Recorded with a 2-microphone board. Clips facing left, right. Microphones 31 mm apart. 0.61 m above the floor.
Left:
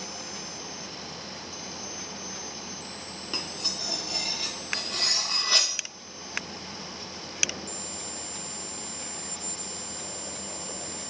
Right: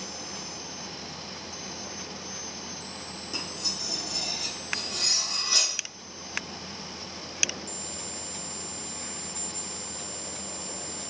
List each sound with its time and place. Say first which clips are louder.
3.3 s cutlery clinking: left 1 dB; 40° left (ahead or behind), 0.6 m